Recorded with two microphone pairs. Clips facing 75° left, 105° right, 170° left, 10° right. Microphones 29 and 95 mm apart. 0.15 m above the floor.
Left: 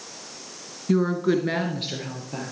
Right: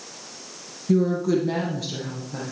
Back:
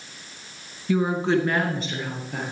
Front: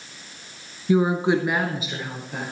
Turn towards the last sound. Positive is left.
turn(degrees=75)